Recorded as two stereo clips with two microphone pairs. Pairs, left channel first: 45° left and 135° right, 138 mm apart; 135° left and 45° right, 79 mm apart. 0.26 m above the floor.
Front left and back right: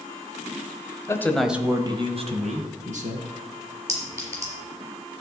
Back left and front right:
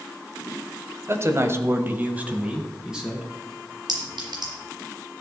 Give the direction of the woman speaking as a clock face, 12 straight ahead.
12 o'clock.